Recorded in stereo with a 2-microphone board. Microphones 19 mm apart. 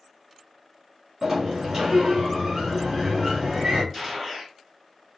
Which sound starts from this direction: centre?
A gunshot, at 3.9 s.